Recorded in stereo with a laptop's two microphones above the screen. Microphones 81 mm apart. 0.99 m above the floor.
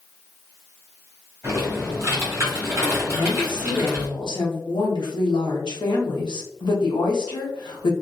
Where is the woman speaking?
75° left (ahead or behind), 0.9 m.